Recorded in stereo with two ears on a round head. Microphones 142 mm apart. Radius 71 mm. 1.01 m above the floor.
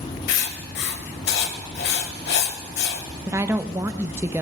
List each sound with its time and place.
0.3 s writing: 70° left (ahead or behind), 1.6 m
3.3 s a woman speaking: 15° right (ahead or behind), 0.6 m